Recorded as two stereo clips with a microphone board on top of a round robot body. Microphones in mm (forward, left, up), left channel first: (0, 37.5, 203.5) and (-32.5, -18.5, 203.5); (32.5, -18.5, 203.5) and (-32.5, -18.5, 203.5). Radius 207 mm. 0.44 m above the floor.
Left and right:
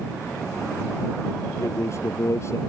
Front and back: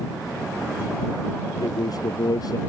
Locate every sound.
1.6 s a man speaking: 15° left